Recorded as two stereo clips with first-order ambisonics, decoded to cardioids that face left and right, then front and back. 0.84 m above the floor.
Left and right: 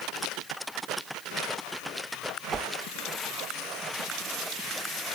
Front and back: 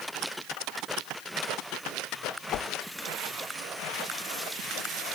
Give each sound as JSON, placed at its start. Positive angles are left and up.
{"t": 2.5, "sound": "a whoosh", "azimuth_deg": -25}